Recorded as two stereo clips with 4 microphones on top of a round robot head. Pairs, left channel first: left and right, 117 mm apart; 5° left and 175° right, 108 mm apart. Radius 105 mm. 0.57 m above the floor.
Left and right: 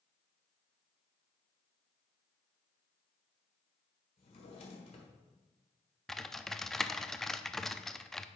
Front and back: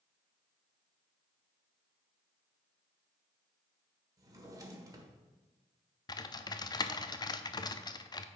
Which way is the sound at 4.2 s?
130° left.